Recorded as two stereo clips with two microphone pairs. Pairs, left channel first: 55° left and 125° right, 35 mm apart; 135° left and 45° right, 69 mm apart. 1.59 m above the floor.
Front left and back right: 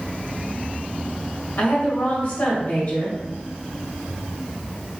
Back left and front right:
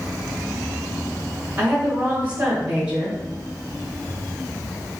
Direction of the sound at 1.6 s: 25° left.